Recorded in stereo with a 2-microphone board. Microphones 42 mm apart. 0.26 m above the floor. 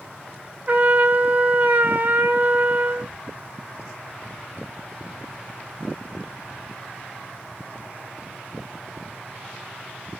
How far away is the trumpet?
About 0.5 m.